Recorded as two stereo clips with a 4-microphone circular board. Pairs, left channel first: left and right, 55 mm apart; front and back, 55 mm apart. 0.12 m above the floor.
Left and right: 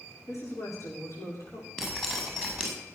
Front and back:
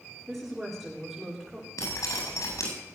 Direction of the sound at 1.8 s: 10° left.